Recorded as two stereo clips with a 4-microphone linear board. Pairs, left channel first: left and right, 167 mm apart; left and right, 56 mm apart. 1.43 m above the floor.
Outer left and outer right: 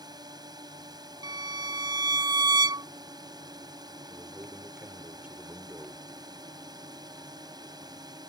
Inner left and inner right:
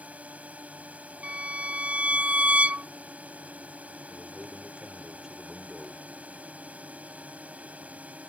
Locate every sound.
0.0 s a drone: 25° right (ahead or behind)
1.2 s a violin: 25° right (ahead or behind)
4.1 s a man speaking: 10° right (ahead or behind)